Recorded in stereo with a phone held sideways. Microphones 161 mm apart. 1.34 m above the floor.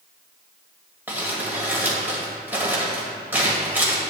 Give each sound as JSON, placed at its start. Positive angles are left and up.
{"t": 1.1, "sound": "crumpling", "side_deg": -10, "distance_m": 1.9}